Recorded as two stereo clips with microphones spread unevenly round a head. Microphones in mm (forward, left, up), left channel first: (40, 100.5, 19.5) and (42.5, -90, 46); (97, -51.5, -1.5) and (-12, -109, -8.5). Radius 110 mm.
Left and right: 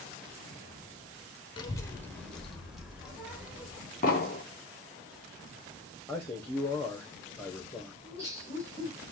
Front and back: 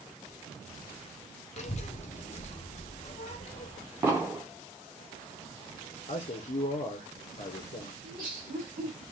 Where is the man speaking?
10° left, 0.8 m.